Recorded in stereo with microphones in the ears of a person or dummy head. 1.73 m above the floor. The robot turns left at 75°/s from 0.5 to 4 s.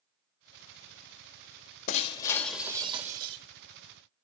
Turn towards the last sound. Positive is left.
turn(degrees=-110)